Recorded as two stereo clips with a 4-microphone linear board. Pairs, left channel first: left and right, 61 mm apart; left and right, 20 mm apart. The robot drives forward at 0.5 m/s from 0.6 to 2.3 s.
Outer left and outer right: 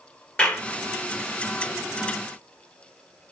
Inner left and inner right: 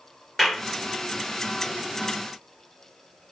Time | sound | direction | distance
0.4 | a clap | 20° left (ahead or behind) | 1.6 m